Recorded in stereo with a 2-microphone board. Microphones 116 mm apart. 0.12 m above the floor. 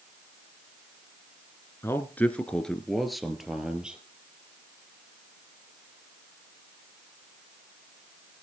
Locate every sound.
1.8 s a man speaking: 20° left (ahead or behind), 1.4 m; by 4.0 s 10° right (ahead or behind), 2.5 m